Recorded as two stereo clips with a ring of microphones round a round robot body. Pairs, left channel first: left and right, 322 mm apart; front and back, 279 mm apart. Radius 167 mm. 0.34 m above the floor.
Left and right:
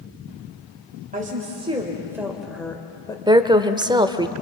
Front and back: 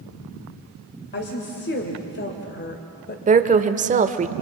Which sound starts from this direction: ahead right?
A woman speaking, at 1.1 s.